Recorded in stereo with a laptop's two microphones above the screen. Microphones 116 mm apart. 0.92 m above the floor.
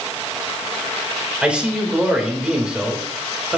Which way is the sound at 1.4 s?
10° right (ahead or behind).